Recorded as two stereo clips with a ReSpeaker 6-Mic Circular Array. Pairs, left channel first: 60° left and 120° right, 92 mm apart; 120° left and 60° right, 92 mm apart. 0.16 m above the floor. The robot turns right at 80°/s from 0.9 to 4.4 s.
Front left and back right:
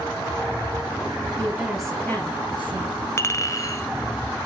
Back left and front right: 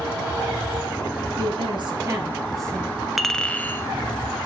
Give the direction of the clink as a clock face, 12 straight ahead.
11 o'clock.